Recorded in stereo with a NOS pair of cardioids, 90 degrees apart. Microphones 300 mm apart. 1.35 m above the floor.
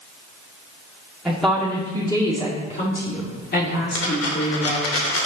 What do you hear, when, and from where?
1.2 s a woman speaking: straight ahead, 2.5 m; by 4.9 s 50° left, 3.5 m
4.0 s a dropped coin: 55° left, 2.5 m